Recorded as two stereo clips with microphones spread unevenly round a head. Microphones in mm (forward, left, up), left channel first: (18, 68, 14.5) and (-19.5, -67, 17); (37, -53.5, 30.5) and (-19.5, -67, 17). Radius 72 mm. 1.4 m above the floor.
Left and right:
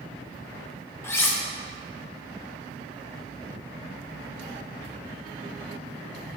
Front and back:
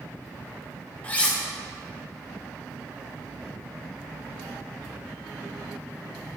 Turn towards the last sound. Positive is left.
turn(degrees=10)